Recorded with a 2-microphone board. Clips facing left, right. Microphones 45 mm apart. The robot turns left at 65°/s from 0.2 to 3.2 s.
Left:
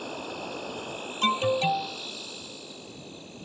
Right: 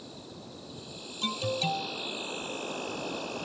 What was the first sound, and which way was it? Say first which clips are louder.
An insect: left 10 dB; 105° left.